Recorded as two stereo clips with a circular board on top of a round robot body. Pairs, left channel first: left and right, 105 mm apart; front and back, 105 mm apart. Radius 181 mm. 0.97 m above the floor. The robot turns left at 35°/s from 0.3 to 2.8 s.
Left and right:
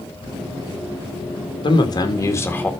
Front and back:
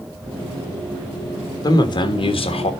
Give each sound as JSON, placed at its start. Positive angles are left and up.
{"t": 1.6, "sound": "a man speaking", "azimuth_deg": 50, "distance_m": 1.7}